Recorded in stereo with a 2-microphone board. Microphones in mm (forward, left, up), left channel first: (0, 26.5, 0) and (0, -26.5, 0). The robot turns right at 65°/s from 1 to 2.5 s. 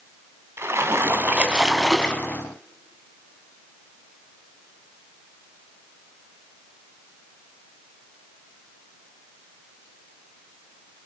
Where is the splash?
50° right, 2 m; by 2.4 s 40° left, 2 m.